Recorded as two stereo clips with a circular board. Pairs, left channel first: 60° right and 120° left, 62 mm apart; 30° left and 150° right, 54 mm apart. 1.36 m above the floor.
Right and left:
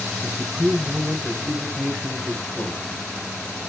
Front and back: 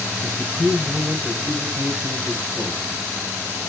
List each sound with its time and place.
0.2 s a man speaking: 115° right, 9.5 m; by 3.0 s 130° right, 10.5 m